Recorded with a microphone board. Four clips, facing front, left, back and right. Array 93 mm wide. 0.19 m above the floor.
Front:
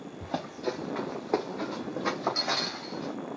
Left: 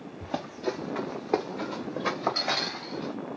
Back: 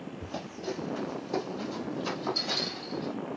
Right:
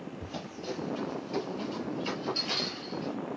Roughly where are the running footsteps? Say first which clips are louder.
Left 11 dB, front 6 dB; ahead left.